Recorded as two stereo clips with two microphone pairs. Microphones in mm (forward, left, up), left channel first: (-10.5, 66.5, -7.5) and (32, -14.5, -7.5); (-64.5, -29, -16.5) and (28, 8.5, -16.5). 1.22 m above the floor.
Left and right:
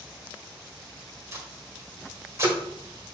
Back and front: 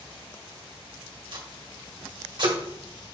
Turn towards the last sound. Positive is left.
turn(degrees=-5)